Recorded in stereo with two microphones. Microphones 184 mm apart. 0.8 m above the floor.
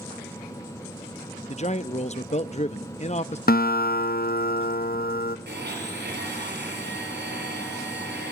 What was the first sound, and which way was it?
A man speaking, 35° left (ahead or behind).